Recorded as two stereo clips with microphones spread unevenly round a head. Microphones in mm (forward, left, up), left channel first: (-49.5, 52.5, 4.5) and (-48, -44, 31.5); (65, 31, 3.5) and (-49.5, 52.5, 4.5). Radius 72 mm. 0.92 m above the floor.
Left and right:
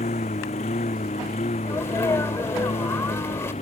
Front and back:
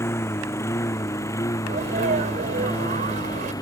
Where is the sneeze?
155° left.